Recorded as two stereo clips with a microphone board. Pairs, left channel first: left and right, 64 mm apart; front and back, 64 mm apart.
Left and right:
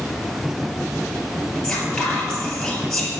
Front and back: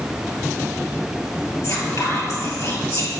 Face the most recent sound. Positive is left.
turn(degrees=15)